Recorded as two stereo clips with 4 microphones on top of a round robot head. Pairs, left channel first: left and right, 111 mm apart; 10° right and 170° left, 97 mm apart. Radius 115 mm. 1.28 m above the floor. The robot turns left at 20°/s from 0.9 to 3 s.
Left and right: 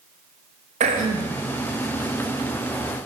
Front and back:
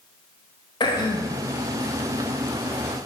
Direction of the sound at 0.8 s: 60° right.